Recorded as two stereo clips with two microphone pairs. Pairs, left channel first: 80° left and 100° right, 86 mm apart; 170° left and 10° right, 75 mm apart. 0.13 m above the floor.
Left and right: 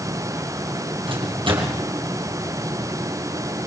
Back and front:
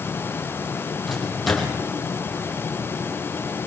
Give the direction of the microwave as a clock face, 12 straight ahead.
3 o'clock.